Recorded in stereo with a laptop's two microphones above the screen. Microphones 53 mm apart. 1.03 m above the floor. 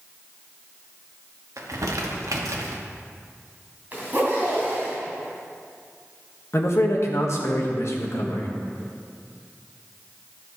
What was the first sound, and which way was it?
Crumpling, 85° right.